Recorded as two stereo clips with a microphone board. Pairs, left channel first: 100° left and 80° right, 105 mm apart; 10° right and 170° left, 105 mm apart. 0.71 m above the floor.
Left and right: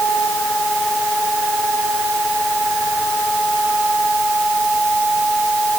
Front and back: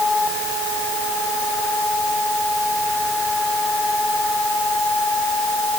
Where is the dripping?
No dripping in this recording.